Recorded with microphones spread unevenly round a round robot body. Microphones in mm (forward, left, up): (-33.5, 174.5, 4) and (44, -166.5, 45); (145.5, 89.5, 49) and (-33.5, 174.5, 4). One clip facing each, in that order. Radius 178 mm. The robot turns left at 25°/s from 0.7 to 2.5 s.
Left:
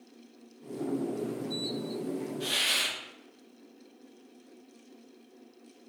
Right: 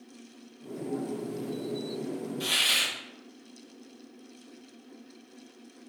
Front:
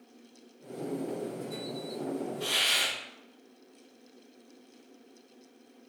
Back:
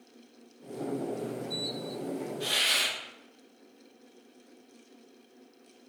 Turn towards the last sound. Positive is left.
turn(degrees=-140)